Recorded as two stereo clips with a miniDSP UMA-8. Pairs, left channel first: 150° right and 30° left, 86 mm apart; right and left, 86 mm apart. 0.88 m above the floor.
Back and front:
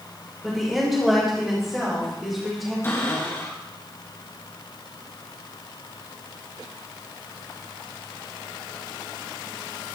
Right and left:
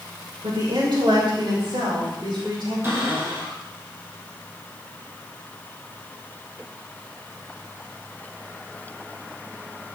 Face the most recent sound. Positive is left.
turn(degrees=150)